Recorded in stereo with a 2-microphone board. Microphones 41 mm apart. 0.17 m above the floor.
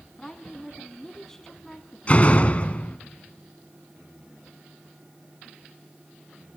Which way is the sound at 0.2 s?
10° left (ahead or behind).